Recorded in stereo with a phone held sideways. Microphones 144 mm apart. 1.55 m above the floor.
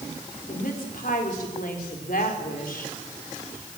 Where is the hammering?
No hammering in this recording.